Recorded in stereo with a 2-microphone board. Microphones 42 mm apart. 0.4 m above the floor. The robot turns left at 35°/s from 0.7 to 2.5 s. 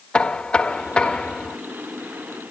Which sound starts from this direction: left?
Knocking, at 0.1 s.